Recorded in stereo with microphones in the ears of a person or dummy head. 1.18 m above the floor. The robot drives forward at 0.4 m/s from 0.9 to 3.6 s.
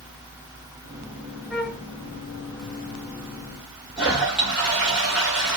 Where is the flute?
Centre (ahead or behind), 1.0 m.